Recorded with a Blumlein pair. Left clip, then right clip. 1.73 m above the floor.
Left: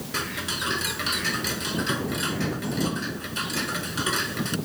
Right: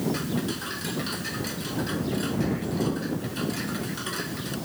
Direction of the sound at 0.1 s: 20° left.